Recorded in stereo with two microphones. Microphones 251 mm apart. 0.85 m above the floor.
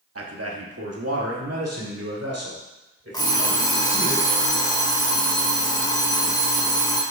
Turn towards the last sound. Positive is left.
turn(degrees=15)  # may be behind; listen again after turning